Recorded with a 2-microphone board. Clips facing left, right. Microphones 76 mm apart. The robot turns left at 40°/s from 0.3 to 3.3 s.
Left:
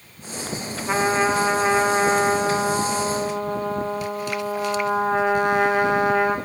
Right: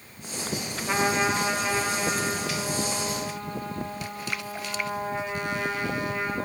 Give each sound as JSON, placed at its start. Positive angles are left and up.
{"t": 0.9, "sound": "a trumpet", "azimuth_deg": 175, "distance_m": 7.5}